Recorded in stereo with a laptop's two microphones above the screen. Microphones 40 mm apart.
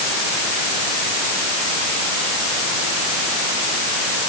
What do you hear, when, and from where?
Only background noise.